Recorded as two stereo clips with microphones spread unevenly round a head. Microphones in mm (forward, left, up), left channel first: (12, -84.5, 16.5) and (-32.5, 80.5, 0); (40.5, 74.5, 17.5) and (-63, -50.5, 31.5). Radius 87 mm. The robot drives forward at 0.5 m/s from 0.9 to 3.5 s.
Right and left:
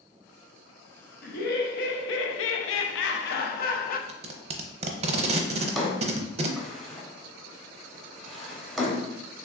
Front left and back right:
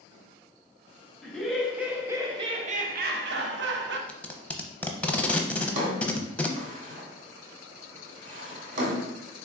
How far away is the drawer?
About 1.0 m.